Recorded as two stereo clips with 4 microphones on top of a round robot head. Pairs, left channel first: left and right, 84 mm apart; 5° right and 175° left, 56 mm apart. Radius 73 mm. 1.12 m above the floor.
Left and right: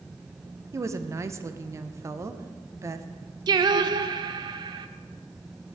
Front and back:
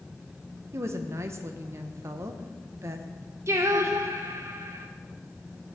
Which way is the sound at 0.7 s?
145° right.